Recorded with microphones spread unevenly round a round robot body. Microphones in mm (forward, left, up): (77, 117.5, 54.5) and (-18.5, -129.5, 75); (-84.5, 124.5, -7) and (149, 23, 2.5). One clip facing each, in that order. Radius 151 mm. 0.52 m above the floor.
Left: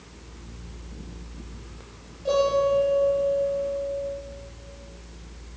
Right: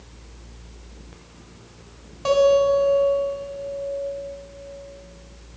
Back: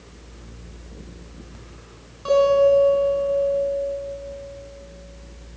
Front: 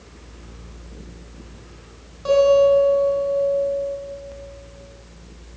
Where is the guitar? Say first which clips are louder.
Right 5 dB, front 2 dB; 105° right, 3 m.